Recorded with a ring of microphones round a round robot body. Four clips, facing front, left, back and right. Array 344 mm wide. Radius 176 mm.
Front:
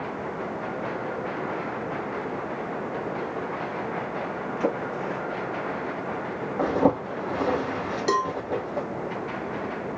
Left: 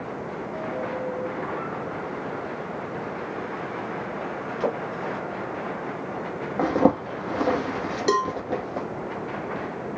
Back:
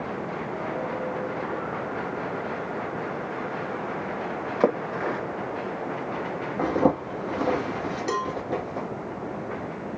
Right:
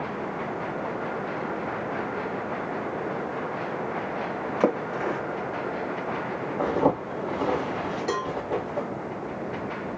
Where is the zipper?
90° left, 1.5 m.